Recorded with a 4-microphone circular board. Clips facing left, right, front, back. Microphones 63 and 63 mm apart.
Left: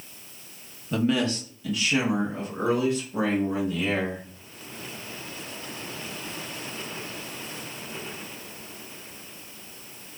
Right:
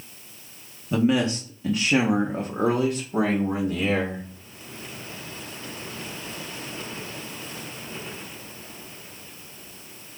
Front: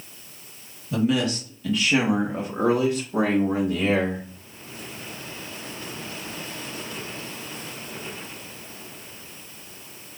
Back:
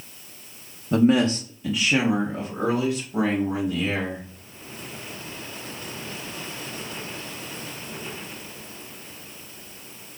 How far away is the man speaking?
About 0.8 m.